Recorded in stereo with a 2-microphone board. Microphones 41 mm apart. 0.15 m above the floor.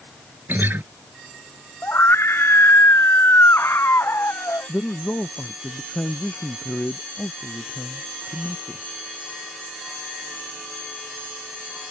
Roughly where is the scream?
Left.